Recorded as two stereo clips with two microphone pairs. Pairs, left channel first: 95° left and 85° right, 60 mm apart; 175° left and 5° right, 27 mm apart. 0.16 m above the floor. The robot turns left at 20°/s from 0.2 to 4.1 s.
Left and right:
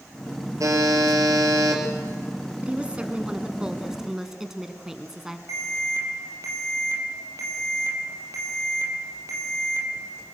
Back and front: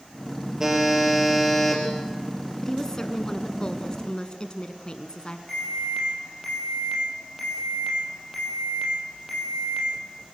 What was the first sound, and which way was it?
A buzzer, 80° right.